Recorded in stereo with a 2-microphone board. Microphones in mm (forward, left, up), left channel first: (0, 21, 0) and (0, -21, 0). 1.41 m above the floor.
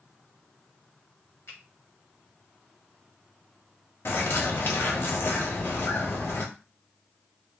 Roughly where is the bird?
Left.